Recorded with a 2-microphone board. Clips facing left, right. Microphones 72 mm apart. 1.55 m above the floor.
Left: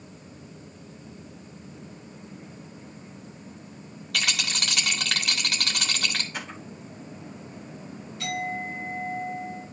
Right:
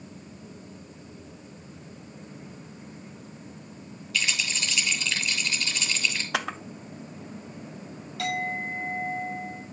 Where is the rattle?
65° left (ahead or behind), 3 m.